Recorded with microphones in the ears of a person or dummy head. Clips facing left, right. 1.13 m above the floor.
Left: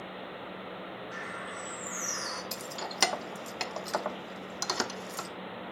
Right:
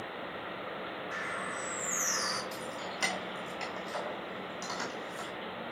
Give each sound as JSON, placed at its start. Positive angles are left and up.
{"t": 1.1, "sound": "a bird", "side_deg": -60, "distance_m": 2.5}
{"t": 2.5, "sound": "keys jangling", "side_deg": 70, "distance_m": 0.5}